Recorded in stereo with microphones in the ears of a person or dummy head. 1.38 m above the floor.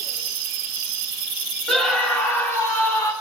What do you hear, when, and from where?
1.7 s a scream: 5° left (ahead or behind), 3.5 m; by 3.1 s 20° left (ahead or behind), 4 m